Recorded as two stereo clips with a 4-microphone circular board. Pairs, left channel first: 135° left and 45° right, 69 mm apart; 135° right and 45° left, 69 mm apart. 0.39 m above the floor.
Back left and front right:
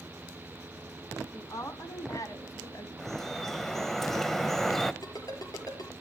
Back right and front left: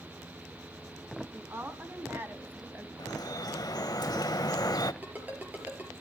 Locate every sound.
1.3 s a woman speaking: 100° left, 3 m; by 2.9 s 105° left, 1.9 m
3.0 s dripping: 140° right, 0.7 m
5.0 s a ringtone: 110° left, 4.5 m